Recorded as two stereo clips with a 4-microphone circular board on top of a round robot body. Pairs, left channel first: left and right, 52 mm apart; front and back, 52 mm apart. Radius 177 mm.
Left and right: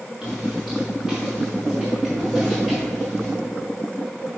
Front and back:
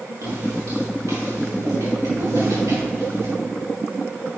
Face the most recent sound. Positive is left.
turn(degrees=180)